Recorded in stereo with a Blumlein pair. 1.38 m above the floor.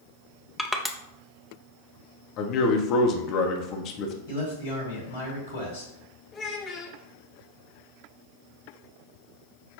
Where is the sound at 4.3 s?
55° left, 1.5 m.